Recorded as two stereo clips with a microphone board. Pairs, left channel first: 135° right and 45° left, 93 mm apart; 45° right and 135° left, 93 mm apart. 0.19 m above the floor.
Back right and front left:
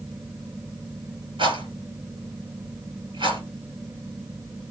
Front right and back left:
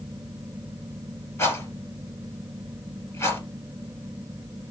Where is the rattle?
15° left, 2.5 m.